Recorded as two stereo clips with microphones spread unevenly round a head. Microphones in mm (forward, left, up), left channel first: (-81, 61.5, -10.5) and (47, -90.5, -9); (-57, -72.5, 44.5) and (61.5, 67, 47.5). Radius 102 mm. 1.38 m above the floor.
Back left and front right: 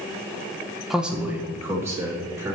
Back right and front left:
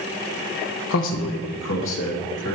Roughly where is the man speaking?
Behind right.